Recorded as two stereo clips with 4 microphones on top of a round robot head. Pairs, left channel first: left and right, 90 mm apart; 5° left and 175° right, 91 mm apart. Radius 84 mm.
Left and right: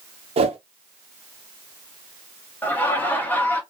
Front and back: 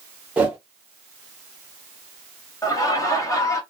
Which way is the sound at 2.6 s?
30° left.